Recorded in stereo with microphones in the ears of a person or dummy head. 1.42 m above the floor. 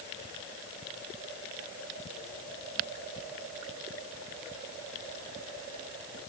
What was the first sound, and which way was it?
Only background noise.